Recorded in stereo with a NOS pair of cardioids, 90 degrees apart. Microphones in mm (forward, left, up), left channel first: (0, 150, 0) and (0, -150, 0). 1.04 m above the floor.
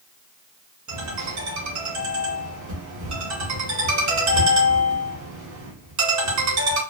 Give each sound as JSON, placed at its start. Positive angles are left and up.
{"t": 0.9, "sound": "a ringtone", "azimuth_deg": -65, "distance_m": 2.0}